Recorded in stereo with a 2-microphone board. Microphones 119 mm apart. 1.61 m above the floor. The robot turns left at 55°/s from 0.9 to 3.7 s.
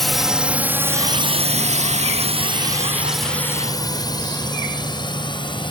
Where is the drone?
Centre (ahead or behind); by 5.7 s 40° left (ahead or behind).